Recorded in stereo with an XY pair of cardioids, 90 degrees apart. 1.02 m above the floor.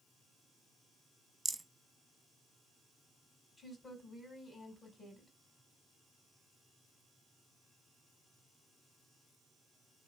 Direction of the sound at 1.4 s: 20° right.